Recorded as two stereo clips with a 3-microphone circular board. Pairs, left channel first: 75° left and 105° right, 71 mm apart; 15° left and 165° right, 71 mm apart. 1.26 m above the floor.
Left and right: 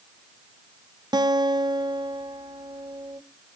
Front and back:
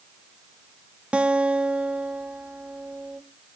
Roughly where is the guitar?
Right.